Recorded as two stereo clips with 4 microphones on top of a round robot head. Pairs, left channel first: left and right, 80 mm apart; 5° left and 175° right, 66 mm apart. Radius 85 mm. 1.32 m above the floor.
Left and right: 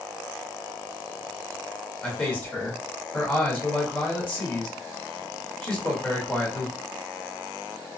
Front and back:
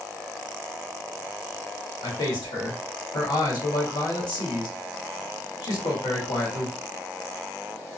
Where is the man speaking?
15° left, 1.4 m.